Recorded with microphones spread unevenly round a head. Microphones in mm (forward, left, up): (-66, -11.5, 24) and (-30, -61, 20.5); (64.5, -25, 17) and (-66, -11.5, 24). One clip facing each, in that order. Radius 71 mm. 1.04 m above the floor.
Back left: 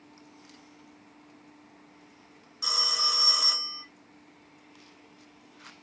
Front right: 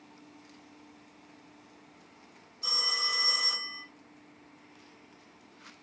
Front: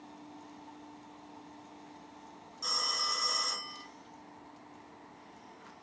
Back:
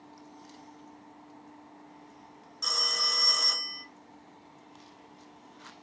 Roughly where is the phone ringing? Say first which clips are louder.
Back left 3 dB, back 2 dB; behind left.